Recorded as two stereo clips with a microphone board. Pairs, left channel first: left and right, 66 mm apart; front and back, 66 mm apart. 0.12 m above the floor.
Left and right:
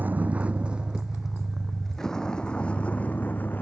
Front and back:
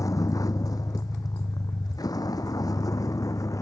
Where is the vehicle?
30° right; by 3.6 s 30° left.